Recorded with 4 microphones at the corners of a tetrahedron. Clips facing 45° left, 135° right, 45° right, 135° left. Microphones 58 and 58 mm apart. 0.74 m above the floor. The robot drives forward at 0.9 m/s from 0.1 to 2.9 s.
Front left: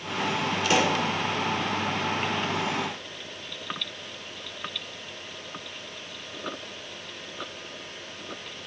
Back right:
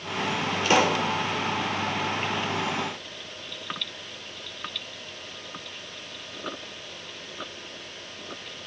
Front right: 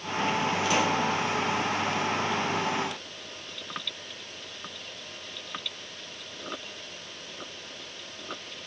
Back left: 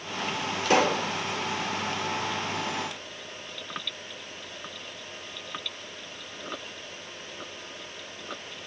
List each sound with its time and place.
0.6 s a pop: 170° left, 1.7 m